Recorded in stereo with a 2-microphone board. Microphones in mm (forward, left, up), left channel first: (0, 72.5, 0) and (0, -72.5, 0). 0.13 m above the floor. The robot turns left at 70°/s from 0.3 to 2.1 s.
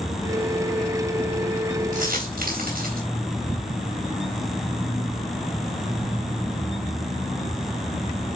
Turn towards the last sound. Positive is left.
turn(degrees=-70)  # may be behind; listen again after turning